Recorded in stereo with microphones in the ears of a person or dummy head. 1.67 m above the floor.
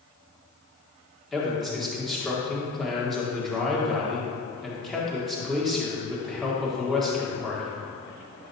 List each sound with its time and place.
1.3 s a man speaking: centre (ahead or behind), 1.6 m